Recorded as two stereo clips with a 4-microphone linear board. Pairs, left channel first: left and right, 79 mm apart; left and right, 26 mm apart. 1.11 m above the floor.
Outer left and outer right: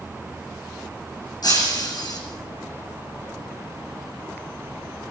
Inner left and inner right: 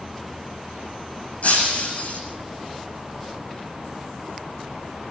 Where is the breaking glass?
60° left (ahead or behind), 7.5 m.